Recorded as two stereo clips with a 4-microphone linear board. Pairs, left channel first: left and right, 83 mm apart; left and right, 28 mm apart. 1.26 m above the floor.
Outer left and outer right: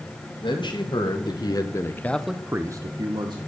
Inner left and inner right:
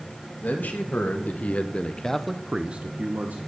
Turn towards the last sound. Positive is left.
turn(degrees=-65)  # may be behind; listen again after turning